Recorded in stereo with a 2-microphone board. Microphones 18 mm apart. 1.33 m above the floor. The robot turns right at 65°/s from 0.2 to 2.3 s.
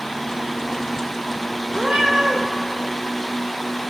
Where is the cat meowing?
120° right, 1.8 m; by 2.4 s 85° right, 1.8 m.